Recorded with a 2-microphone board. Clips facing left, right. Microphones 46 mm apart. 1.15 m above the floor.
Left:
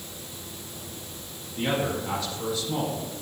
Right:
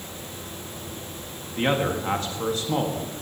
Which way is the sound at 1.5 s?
45° right (ahead or behind).